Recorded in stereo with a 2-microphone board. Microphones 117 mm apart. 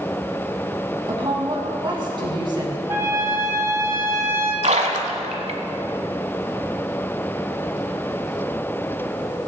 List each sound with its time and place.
1.1 s a woman speaking: 40° right (ahead or behind), 2.5 m
2.9 s a trumpet: 20° right (ahead or behind), 1.1 m
4.6 s a splash: 70° right (ahead or behind), 1.1 m